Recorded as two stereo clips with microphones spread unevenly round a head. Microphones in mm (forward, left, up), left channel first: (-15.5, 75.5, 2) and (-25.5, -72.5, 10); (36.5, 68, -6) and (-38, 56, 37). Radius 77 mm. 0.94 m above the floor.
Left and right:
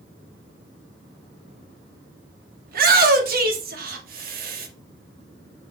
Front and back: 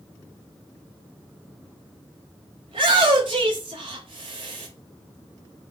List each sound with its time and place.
2.7 s a shout: 115° right, 2.5 m